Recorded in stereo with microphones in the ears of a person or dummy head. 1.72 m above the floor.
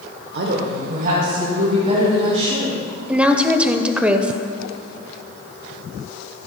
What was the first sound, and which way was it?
A woman speaking, 65° right (ahead or behind).